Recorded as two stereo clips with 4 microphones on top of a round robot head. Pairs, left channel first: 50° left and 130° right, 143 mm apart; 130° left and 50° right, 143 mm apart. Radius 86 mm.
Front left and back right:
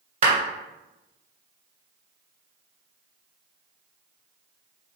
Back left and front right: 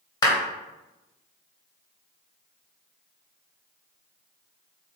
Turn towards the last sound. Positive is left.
turn(degrees=-165)